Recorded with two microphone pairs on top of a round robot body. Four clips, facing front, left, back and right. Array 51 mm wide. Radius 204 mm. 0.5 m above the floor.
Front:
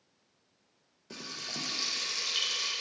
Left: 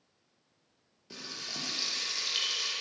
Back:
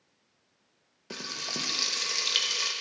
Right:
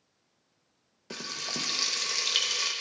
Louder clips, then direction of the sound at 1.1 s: Right 6 dB, back 4 dB; 140° right.